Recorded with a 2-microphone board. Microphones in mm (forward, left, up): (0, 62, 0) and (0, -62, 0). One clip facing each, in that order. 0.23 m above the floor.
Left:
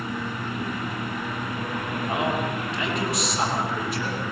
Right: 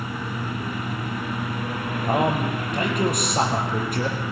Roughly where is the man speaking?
Right.